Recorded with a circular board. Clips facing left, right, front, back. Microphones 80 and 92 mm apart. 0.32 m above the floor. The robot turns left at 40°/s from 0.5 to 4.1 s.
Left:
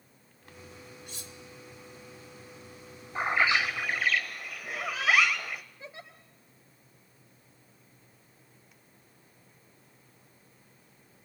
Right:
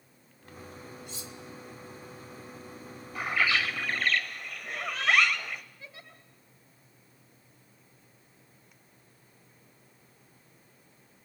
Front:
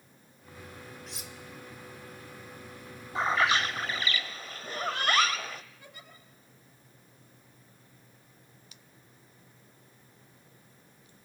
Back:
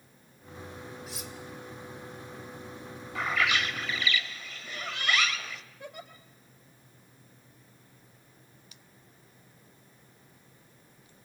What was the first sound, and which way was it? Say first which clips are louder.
Cutlery clinking: right 3 dB, back 3 dB; 95° left.